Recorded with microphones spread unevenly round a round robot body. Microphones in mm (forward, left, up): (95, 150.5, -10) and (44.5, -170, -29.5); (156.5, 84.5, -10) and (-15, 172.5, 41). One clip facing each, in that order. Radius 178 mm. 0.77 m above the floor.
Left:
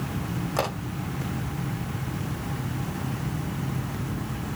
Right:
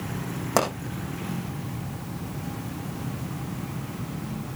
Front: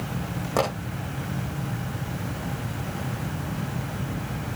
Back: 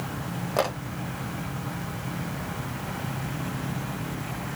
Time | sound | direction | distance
0.6 | a pop | 90° right | 7 m